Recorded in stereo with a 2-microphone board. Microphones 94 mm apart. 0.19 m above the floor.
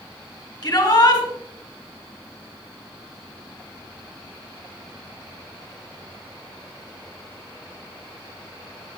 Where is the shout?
50° left (ahead or behind), 2.5 m.